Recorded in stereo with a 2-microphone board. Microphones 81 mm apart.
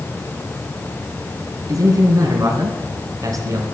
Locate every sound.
1.7 s a man speaking: 45° right (ahead or behind), 2.5 m